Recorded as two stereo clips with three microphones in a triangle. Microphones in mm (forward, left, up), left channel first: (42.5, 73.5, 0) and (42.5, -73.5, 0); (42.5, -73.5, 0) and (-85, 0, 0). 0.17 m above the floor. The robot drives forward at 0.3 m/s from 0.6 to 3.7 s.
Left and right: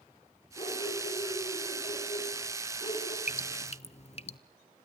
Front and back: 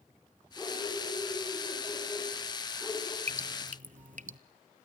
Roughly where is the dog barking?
Ahead left.